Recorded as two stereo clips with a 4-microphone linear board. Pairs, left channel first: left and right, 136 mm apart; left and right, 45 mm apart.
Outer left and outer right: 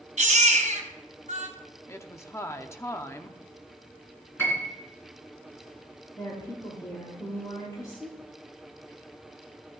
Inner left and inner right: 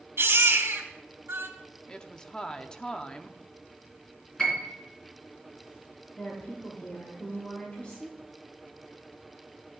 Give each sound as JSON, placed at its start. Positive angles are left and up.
{"t": 0.2, "sound": "a baby crying", "side_deg": -70, "distance_m": 2.0}
{"t": 1.9, "sound": "a woman speaking", "side_deg": 20, "distance_m": 0.6}
{"t": 4.4, "sound": "a piano", "side_deg": 15, "distance_m": 3.0}
{"t": 6.2, "sound": "a woman speaking", "side_deg": 30, "distance_m": 1.9}